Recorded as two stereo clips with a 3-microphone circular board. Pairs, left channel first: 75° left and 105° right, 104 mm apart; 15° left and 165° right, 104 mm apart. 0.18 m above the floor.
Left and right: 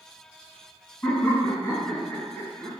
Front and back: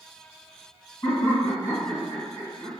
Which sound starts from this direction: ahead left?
Laughter, at 1.0 s.